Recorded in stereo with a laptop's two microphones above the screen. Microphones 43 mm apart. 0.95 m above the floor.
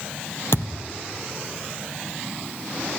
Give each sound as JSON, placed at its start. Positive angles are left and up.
{"t": 0.5, "sound": "a thud", "side_deg": 70, "distance_m": 2.5}